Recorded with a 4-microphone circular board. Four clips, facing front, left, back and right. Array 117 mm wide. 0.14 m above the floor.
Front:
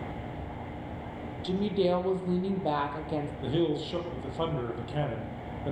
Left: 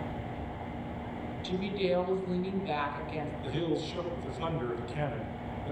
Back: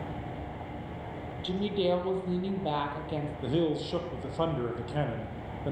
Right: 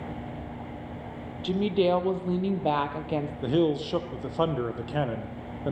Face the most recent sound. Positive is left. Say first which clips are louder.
# right 8 dB, back 1 dB
turn(degrees=-95)